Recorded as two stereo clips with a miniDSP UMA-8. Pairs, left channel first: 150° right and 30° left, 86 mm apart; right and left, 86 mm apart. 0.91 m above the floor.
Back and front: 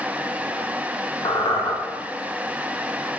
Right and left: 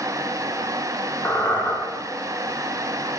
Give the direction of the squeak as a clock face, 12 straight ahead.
5 o'clock.